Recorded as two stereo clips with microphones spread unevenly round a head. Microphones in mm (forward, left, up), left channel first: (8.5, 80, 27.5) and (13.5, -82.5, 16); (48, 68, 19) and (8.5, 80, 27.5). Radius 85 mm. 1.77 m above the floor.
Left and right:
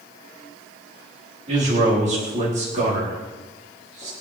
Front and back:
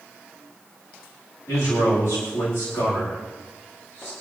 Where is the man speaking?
40° right, 4.5 m.